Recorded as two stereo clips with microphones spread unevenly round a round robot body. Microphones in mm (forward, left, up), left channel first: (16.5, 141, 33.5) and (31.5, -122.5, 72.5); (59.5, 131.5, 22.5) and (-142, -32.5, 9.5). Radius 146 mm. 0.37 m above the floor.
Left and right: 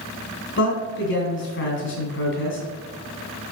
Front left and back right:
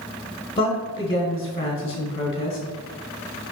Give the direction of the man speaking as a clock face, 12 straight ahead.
9 o'clock.